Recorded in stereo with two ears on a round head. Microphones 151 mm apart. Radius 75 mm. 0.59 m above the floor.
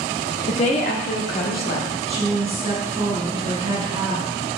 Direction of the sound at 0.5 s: 35° left (ahead or behind).